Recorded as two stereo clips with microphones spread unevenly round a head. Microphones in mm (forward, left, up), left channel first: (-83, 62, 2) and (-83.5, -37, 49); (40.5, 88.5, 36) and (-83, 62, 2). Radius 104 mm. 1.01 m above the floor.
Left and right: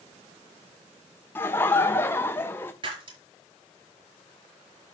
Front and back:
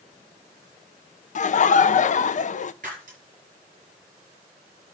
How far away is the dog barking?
I don't hear a dog barking.